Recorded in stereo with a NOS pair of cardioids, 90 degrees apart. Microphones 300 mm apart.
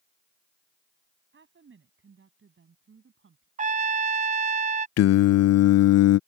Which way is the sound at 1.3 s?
40° right.